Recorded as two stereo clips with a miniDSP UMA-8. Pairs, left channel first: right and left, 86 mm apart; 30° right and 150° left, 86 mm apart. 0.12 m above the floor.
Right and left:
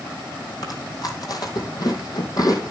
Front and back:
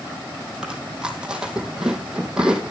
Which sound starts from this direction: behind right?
Chewing, at 0.6 s.